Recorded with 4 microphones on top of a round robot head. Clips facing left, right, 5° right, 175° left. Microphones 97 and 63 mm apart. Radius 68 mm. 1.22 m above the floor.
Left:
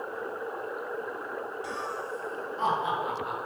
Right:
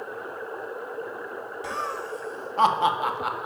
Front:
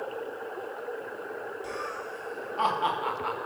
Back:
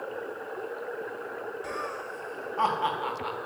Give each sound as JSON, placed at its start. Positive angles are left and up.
{"t": 1.6, "sound": "laughter", "azimuth_deg": -125, "distance_m": 2.5}